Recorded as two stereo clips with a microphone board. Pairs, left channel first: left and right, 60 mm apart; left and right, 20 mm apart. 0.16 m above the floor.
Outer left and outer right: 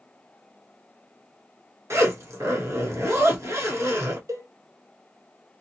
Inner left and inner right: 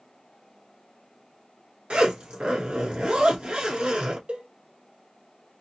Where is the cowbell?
60° right (ahead or behind), 0.7 m.